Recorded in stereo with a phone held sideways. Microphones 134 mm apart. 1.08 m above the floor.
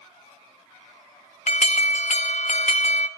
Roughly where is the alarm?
Left.